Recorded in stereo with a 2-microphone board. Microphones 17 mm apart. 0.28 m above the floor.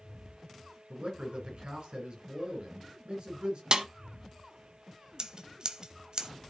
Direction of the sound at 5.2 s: 45° right (ahead or behind).